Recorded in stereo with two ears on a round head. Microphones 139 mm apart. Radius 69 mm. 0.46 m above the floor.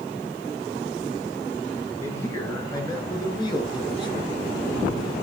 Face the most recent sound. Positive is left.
turn(degrees=35)  # may be behind; listen again after turning